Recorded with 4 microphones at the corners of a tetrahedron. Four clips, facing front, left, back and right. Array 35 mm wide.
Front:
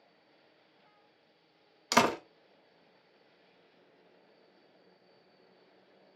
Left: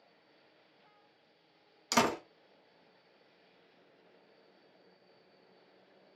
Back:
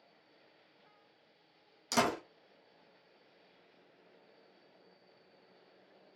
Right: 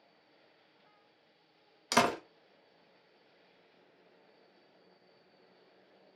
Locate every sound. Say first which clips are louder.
1.9 s a door slam: right 1 dB, front 5 dB; 25° right, 0.6 m